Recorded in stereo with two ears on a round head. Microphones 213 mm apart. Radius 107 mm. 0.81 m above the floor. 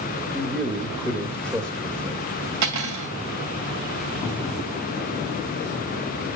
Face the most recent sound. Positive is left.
turn(degrees=-75)  # may be behind; listen again after turning